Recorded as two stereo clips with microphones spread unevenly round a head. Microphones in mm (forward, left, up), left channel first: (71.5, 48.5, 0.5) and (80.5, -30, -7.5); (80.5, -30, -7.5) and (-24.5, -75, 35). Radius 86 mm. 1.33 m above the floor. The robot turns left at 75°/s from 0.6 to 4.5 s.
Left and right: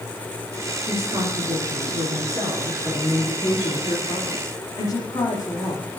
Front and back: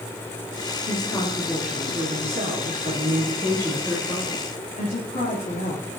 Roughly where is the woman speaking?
Ahead.